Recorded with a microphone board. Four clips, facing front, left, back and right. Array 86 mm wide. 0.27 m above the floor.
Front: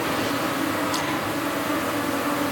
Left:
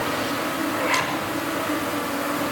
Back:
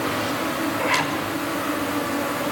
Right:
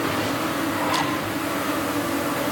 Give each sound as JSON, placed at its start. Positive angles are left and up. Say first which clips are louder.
{"t": 0.8, "sound": "a zipper", "louder": "even, back 2 dB", "azimuth_deg": 145, "distance_m": 6.5}